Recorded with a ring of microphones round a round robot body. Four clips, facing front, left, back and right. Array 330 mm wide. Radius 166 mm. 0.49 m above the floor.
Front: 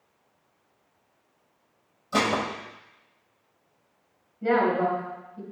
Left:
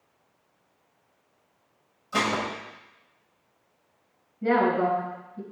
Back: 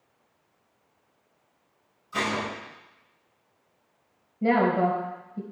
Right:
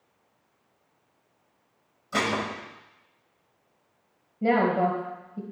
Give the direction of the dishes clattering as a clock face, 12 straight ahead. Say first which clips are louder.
Left 1 dB, front 4 dB; 1 o'clock.